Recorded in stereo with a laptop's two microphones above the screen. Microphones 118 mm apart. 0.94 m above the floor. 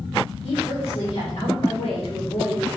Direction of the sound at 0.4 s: 70° left (ahead or behind).